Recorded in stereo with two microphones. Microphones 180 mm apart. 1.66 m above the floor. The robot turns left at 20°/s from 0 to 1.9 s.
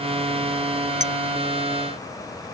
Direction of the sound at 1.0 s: 45° right (ahead or behind).